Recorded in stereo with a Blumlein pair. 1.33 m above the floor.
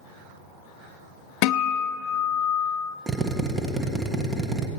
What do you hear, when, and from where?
1.4 s a guitar: 40° left, 0.5 m
3.1 s a drill: 10° right, 1.4 m